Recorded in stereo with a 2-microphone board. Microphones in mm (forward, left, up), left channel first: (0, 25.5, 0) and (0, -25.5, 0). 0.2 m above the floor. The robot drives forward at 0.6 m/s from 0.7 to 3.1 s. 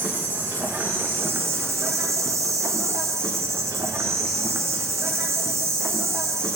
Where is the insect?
45° right (ahead or behind), 1.4 m; by 6.6 s 65° right (ahead or behind), 1.1 m.